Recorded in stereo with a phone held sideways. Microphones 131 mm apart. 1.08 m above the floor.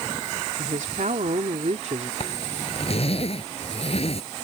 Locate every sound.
0.6 s a woman speaking: 80° right; by 2.1 s 60° right (ahead or behind)
2.2 s a zipper: 50° left (ahead or behind)